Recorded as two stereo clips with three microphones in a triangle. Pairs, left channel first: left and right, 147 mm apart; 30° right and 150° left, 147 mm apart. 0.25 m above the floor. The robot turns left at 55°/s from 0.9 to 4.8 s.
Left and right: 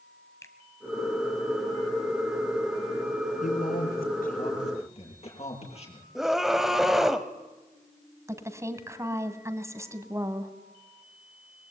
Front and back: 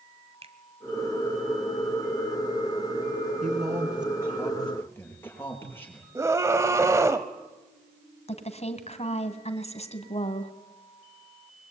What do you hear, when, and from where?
0.4 s a finger snap: 150° left, 1.4 m
3.4 s a man speaking: 120° left, 7 m; by 6.0 s 45° left, 7 m
6.2 s a scream: 175° right, 0.9 m
8.3 s a woman speaking: 25° right, 2 m